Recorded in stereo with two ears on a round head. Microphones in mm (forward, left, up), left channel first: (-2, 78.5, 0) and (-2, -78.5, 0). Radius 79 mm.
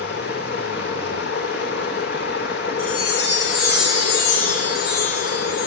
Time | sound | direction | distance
0.0 | running water | 60° left (ahead or behind) | 8.5 m
2.8 | a chime | 55° left (ahead or behind) | 6 m